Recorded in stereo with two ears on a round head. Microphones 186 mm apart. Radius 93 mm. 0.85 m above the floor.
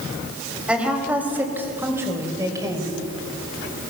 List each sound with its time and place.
0.7 s a woman speaking: 5° right (ahead or behind), 4.5 m; by 3.0 s 20° right (ahead or behind), 3.5 m